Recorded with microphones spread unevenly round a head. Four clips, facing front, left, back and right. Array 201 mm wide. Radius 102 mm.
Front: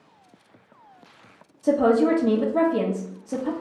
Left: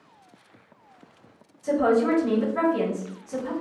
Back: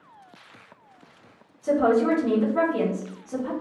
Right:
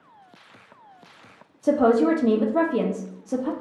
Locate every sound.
1.6 s a woman speaking: 55° right, 0.6 m